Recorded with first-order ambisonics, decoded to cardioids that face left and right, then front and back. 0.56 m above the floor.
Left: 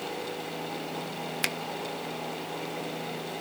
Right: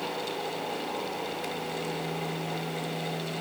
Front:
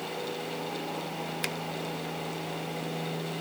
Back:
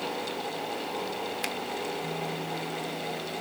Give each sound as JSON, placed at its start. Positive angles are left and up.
{"t": 1.4, "sound": "a finger snap", "azimuth_deg": 85, "distance_m": 1.0}